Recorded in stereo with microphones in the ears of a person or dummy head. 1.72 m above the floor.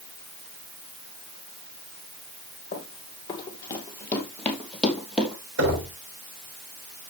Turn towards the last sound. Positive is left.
turn(degrees=-70)  # may be behind; listen again after turning